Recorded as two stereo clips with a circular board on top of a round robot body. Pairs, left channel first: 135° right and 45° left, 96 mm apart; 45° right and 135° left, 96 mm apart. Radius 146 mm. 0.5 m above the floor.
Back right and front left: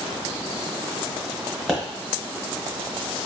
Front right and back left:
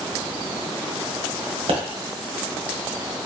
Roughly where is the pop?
Behind left.